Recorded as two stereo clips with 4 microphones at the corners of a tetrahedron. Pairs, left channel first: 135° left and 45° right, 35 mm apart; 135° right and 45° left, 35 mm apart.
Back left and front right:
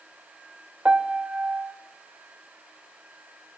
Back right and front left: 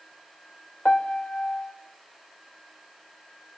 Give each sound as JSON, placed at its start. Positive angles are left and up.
{"t": 0.8, "sound": "a piano", "azimuth_deg": -90, "distance_m": 1.4}